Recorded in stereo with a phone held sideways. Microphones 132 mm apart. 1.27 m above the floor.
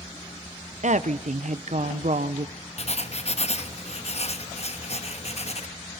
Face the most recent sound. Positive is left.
turn(degrees=55)  # may be behind; listen again after turning